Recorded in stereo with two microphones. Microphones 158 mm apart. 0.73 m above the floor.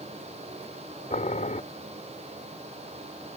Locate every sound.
1.1 s boiling: 55° left (ahead or behind)